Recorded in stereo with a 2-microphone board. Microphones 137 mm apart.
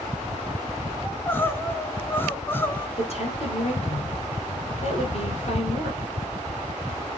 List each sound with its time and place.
1.1 s crying: 15° left (ahead or behind), 1.0 m
3.0 s a woman speaking: 50° left (ahead or behind), 3.5 m